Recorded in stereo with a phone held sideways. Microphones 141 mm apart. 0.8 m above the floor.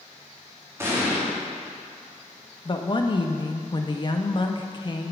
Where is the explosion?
20° right (ahead or behind), 1.7 m.